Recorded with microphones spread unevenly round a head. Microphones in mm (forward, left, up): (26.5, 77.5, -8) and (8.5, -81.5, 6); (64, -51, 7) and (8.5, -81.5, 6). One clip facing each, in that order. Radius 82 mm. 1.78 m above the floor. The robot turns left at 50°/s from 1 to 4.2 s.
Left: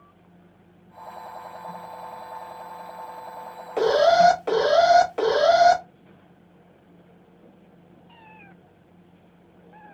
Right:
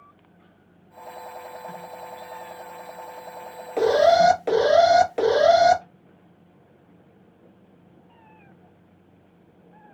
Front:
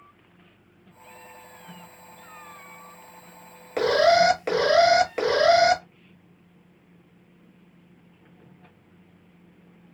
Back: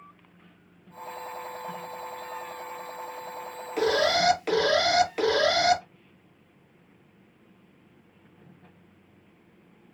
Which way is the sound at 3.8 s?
5° right.